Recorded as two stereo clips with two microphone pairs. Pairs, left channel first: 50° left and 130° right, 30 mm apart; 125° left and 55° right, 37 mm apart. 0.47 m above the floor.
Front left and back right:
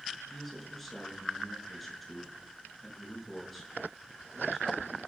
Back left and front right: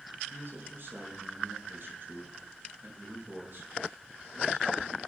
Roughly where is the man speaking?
Ahead right.